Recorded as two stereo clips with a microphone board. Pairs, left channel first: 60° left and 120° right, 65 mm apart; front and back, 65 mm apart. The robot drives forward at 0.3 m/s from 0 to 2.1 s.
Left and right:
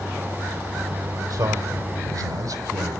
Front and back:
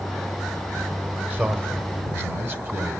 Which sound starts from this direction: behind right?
A man speaking, at 1.3 s.